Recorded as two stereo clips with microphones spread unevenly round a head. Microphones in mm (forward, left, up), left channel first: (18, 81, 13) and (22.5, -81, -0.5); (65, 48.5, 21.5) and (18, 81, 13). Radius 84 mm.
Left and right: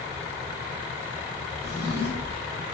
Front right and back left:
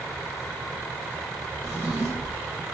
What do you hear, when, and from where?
1.6 s a drawer: 115° right, 2 m